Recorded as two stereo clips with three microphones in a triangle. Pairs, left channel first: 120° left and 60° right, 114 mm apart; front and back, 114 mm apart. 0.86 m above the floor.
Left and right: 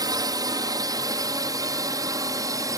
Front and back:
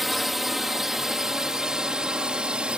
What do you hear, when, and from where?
0.0 s a drone: 90° right; by 2.8 s 105° right